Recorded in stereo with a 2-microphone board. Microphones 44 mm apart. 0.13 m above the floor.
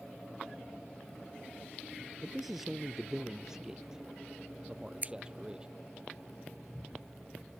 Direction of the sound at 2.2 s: 5° right (ahead or behind).